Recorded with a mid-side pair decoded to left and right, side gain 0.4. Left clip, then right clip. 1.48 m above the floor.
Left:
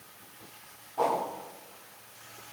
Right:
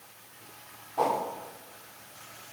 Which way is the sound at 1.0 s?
40° right.